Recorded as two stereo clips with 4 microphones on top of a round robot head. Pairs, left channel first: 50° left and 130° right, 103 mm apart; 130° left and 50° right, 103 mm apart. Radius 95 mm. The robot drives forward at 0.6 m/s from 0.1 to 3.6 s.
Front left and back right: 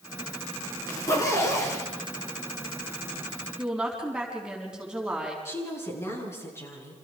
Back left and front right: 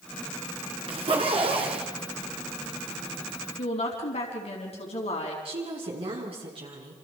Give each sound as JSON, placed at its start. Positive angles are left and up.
{"t": 0.9, "sound": "a zipper", "azimuth_deg": -10, "distance_m": 3.0}
{"t": 3.6, "sound": "a woman speaking", "azimuth_deg": 145, "distance_m": 4.5}
{"t": 5.5, "sound": "a woman speaking", "azimuth_deg": -15, "distance_m": 7.0}